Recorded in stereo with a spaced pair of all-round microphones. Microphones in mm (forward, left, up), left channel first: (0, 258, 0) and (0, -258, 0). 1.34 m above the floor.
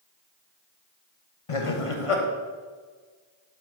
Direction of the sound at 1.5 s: 80° left.